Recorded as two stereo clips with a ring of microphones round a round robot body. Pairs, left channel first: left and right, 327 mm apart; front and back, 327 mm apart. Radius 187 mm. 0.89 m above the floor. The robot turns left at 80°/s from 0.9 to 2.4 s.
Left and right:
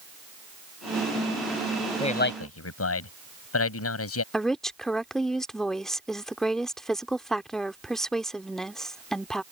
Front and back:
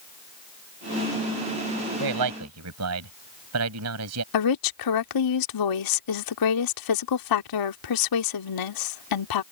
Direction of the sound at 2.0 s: 165° left.